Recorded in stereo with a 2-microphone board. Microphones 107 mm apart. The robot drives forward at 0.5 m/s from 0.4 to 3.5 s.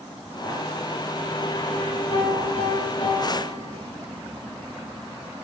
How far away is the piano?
About 6.5 m.